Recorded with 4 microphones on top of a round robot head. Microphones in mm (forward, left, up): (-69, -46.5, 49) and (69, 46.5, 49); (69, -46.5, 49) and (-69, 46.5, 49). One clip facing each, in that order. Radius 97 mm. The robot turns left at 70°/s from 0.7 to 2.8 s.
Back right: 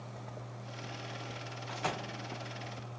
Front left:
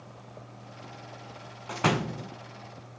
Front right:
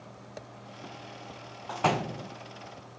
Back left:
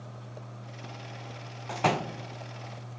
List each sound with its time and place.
1.7 s a door slam: 70° left; by 2.3 s 30° left